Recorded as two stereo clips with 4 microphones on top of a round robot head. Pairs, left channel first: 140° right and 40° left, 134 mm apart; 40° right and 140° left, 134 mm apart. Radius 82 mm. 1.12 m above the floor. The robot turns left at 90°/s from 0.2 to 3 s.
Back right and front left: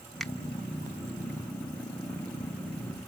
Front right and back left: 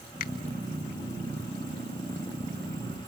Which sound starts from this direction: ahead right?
A finger snap, at 0.2 s.